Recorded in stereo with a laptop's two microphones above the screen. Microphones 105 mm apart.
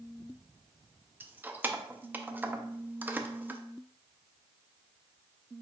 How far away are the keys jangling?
About 0.5 m.